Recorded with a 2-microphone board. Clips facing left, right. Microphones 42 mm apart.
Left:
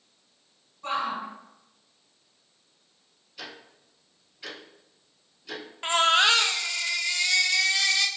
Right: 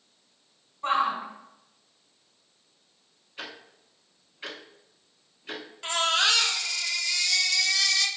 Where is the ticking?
40° right (ahead or behind), 0.9 m.